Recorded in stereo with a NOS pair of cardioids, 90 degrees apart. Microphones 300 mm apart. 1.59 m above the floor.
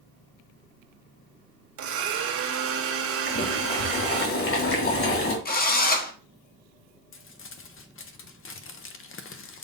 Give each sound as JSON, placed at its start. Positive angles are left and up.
{"t": 1.8, "sound": "a blender", "azimuth_deg": -45, "distance_m": 1.5}
{"t": 3.3, "sound": "boiling", "azimuth_deg": 45, "distance_m": 3.0}
{"t": 5.5, "sound": "a drill", "azimuth_deg": 30, "distance_m": 1.3}
{"t": 7.1, "sound": "crumpling", "azimuth_deg": 45, "distance_m": 1.0}